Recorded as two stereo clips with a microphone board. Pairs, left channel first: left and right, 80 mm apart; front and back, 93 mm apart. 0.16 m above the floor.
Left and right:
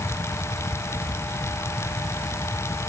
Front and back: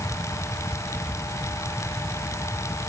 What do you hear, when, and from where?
Only background noise.